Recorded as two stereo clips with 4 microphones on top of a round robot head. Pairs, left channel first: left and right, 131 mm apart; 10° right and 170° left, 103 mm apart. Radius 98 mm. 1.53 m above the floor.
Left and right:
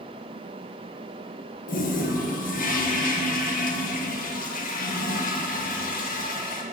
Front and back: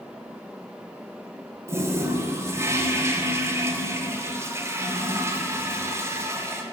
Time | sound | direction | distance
1.7 | a toilet flushing | 105° left | 1.3 m